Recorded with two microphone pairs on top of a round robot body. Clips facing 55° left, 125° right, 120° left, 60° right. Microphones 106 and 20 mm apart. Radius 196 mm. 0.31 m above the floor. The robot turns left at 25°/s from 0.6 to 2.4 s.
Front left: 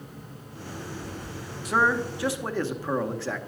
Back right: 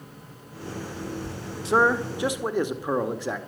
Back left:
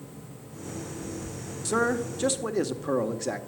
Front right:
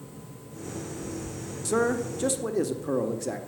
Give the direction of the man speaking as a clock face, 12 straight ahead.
5 o'clock.